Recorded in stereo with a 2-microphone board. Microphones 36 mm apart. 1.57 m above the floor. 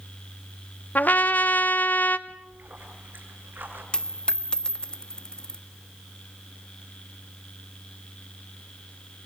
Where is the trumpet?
55° left (ahead or behind), 1.0 m.